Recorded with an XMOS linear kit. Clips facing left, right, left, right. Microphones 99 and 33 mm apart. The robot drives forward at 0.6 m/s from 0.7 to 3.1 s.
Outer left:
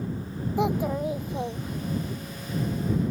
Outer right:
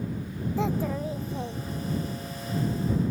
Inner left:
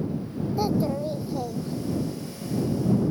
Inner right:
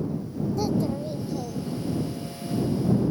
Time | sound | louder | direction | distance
0.6 | a child speaking | outer left 3 dB, inner left 2 dB | 15° left (ahead or behind) | ?